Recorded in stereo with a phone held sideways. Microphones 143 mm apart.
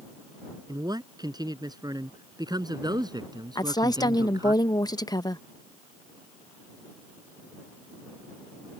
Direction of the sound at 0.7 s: 30° right (ahead or behind).